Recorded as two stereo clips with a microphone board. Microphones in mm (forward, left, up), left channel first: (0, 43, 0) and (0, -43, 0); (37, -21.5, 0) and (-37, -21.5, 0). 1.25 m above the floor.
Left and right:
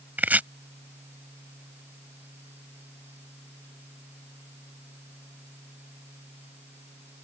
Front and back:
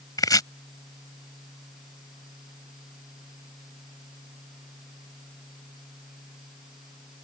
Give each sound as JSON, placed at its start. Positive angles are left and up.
{"t": 0.2, "sound": "chopping", "azimuth_deg": -20}